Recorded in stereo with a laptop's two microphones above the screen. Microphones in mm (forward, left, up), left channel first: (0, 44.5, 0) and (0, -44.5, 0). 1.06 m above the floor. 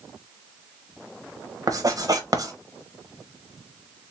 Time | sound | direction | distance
1.7 | writing | 40° right (ahead or behind) | 0.9 m